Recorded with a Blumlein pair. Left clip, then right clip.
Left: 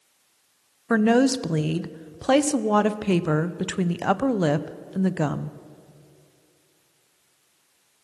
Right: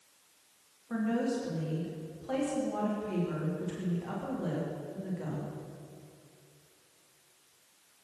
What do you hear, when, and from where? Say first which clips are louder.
0.9 s a woman speaking: left 13 dB; 40° left, 0.6 m